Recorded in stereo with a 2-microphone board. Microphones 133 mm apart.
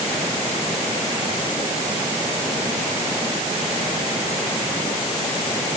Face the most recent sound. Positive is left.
No sound to turn to.